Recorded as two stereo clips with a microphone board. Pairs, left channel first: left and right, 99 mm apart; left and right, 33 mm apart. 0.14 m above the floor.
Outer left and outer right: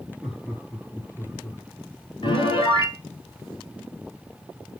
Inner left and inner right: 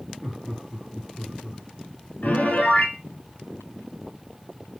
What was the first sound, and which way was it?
Laughter, centre (ahead or behind).